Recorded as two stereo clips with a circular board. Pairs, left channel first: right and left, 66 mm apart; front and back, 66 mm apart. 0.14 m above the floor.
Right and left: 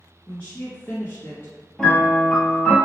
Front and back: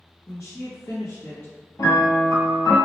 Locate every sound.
0.3 s a woman speaking: 20° right, 1.7 m; by 1.5 s 55° right, 1.7 m
1.8 s a piano: 15° right, 1.3 m